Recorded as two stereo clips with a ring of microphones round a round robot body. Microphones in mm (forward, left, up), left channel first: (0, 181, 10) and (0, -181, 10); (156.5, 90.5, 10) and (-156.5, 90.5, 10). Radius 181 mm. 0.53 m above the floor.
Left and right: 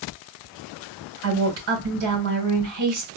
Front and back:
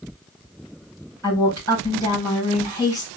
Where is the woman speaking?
100° right, 3.5 m.